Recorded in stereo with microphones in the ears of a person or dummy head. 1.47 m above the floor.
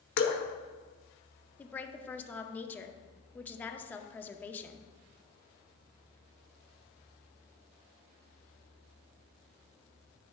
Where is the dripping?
65° left (ahead or behind), 1.1 m.